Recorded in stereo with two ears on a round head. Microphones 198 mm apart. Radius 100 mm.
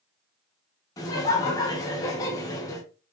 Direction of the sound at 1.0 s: 15° left (ahead or behind).